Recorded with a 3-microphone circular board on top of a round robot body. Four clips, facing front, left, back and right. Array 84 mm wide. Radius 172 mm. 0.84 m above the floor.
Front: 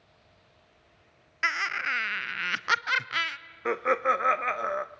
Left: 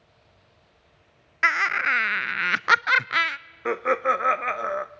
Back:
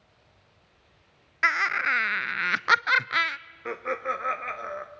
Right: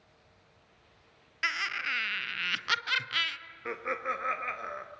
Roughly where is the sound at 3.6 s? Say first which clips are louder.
Left 11 dB, front 5 dB; ahead left.